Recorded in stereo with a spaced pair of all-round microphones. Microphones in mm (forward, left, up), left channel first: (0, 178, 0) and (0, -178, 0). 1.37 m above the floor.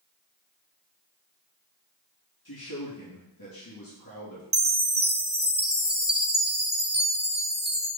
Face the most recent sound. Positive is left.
turn(degrees=-25)  # may be behind; listen again after turning